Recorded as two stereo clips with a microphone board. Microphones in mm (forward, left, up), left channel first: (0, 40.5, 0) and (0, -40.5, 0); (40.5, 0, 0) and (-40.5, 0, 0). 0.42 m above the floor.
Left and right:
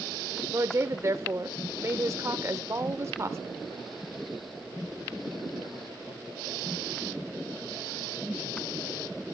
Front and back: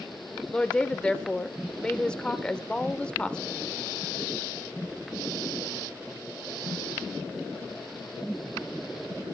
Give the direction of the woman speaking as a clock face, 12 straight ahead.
2 o'clock.